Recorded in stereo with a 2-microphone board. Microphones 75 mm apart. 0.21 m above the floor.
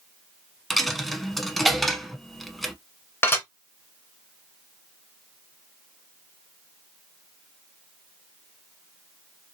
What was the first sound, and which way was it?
A dropped coin, 5° left (ahead or behind).